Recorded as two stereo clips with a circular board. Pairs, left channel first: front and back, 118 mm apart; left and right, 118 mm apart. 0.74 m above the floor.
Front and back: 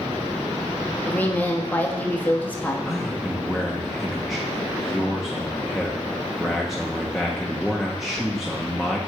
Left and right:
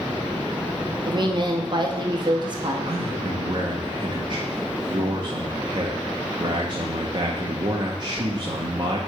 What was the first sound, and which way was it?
A woman speaking, 70° right.